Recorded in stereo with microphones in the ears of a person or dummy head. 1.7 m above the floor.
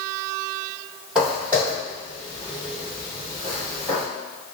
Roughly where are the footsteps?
Centre.